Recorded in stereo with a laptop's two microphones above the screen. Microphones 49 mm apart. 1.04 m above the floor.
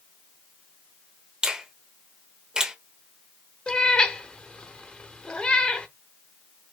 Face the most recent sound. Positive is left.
turn(degrees=20)  # may be behind; listen again after turning